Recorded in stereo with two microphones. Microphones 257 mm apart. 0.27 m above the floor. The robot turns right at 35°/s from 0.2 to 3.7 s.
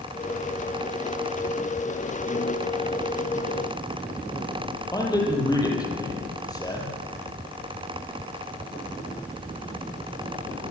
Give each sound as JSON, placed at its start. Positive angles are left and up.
{"t": 4.9, "sound": "a man speaking", "side_deg": 15, "distance_m": 10.0}